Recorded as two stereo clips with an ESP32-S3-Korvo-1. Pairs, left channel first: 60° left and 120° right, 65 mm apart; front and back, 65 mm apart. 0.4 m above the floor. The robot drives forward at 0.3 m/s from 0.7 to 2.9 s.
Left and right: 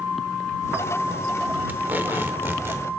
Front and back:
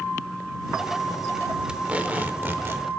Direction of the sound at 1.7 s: 120° right.